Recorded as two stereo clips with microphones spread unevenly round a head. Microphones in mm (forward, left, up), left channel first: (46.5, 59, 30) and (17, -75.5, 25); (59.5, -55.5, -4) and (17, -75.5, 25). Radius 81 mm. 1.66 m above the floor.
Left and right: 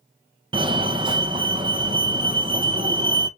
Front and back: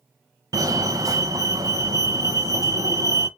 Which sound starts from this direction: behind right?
A fire alarm, at 0.5 s.